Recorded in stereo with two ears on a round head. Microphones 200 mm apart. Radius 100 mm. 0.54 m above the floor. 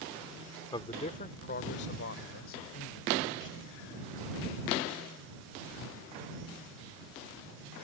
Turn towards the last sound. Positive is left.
turn(degrees=70)  # may be behind; listen again after turning